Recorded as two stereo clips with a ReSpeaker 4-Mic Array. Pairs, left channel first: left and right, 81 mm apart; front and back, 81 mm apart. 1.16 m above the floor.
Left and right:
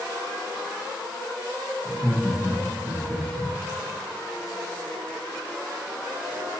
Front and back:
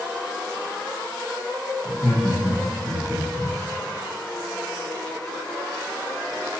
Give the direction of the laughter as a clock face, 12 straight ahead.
6 o'clock.